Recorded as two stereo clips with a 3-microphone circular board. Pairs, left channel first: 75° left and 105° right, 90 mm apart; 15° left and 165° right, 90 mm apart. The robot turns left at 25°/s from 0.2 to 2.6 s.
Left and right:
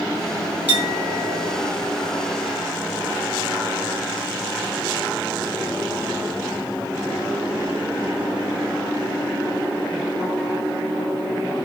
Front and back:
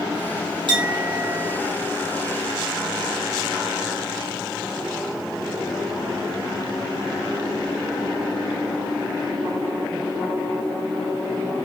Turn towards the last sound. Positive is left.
turn(degrees=135)